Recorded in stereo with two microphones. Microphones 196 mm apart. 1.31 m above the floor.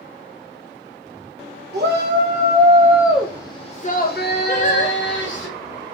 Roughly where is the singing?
Left.